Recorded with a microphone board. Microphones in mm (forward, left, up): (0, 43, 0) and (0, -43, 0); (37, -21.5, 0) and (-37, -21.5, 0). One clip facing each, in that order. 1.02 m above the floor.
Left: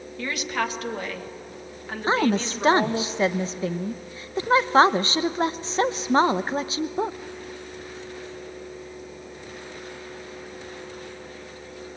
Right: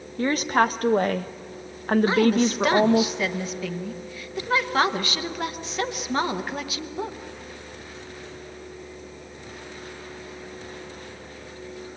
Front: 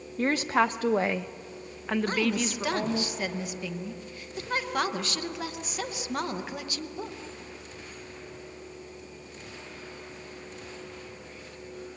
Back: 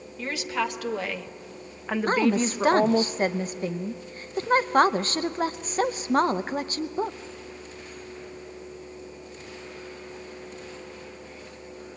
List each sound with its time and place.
0.2 s a woman speaking: 40° right, 1.2 m; by 3.1 s 145° right, 1.0 m
2.1 s a woman speaking: 140° left, 0.7 m